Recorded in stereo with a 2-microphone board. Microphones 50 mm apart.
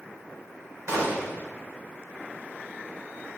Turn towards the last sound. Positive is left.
turn(degrees=-85)